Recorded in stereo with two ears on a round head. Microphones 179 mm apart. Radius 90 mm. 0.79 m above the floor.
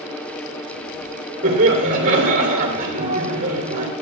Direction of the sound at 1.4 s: 40° right (ahead or behind).